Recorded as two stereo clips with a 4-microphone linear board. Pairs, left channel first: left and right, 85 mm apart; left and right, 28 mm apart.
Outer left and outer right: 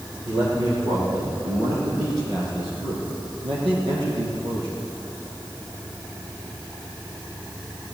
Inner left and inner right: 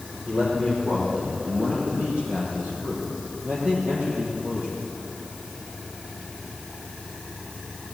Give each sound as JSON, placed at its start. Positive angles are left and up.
{"t": 0.3, "sound": "a man speaking", "side_deg": -55, "distance_m": 6.5}